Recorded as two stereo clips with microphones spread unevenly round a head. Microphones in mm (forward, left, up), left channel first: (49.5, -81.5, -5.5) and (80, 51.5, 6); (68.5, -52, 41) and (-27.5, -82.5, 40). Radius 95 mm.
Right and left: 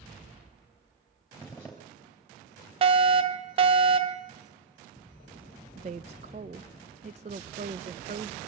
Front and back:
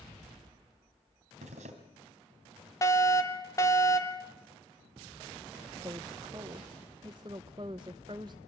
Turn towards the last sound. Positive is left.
turn(degrees=130)